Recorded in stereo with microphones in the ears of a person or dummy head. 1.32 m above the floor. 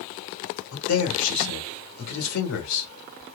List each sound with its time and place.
0.7 s a man speaking: 80° left, 1.5 m